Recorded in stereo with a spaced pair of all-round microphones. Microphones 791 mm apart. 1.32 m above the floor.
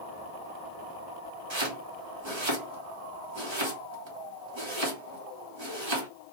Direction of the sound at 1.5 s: 35° right (ahead or behind).